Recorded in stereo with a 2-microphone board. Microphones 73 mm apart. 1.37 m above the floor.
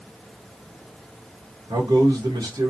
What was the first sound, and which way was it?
A man speaking, 75° right (ahead or behind).